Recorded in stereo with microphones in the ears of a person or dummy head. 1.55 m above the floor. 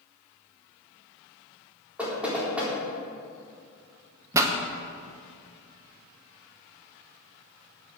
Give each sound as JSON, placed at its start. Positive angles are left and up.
{"t": 2.0, "sound": "knocking", "side_deg": -5, "distance_m": 3.5}
{"t": 4.3, "sound": "a pop", "side_deg": -15, "distance_m": 0.9}